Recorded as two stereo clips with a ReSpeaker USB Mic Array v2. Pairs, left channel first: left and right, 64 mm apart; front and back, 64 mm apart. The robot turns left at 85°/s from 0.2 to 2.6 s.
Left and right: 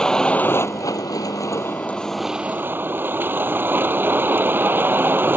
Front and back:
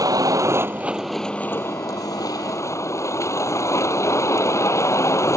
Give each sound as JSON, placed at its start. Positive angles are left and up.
{"t": 0.0, "sound": "a vehicle", "azimuth_deg": 165}